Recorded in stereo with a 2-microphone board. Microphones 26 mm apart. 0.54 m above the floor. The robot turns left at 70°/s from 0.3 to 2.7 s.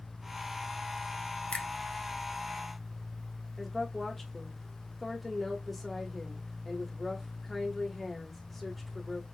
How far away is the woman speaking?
About 1.4 m.